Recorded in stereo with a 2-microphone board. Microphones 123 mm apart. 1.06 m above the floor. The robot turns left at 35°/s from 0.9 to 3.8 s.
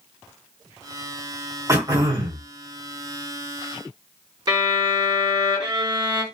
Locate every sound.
1.7 s throat clearing: 25° right (ahead or behind), 1.4 m; by 2.4 s 50° right (ahead or behind), 1.4 m
4.5 s a violin: 35° right (ahead or behind), 2 m